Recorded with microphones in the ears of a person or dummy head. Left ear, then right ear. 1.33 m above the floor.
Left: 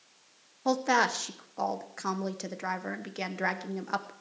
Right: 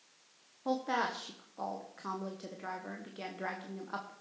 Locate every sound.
0.7 s a woman speaking: 65° left (ahead or behind), 1.0 m